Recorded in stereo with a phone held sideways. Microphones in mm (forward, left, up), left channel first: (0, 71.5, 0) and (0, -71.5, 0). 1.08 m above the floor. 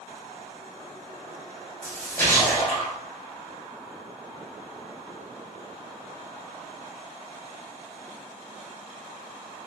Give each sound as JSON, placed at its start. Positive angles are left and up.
{"t": 1.8, "sound": "a splash", "side_deg": 15, "distance_m": 3.5}